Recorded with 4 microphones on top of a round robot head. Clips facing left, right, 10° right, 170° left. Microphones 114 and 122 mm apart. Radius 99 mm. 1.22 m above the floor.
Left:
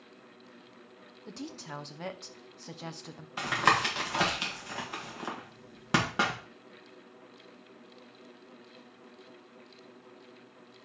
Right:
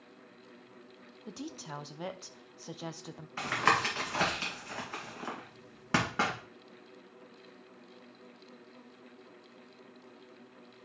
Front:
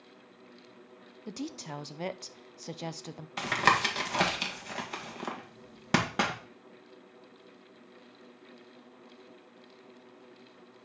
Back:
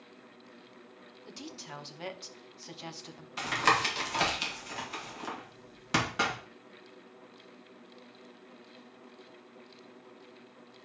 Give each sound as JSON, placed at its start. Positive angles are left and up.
{"t": 1.3, "sound": "a woman speaking", "azimuth_deg": -10, "distance_m": 0.7}
{"t": 3.4, "sound": "tapping", "azimuth_deg": 15, "distance_m": 1.8}